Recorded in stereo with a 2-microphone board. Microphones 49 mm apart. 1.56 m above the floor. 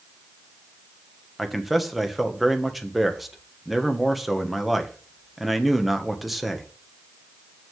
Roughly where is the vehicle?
I don't hear a vehicle.